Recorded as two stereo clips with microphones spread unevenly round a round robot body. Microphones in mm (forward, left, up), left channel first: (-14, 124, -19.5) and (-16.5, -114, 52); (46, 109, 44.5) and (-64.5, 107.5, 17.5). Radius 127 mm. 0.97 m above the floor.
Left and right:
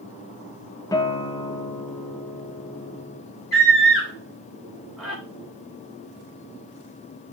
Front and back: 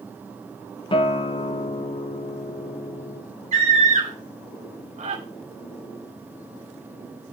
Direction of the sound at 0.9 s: 40° left.